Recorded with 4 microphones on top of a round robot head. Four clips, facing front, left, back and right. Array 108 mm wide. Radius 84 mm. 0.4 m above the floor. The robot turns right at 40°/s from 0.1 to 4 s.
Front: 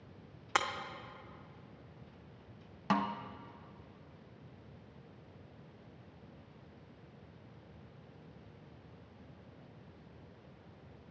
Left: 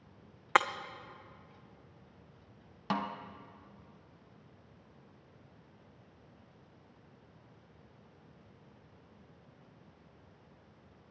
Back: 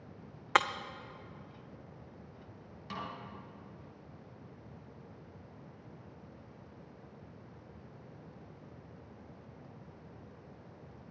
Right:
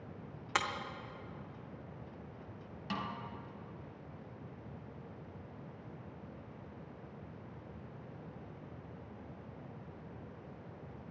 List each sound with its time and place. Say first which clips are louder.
0.6 s breaking glass: left 8 dB, back 5 dB; 120° left, 0.7 m; by 0.7 s 125° left, 0.7 m
2.9 s a snare drum: left 5 dB, front 9 dB; 35° left, 0.6 m; by 3.2 s 50° left, 0.6 m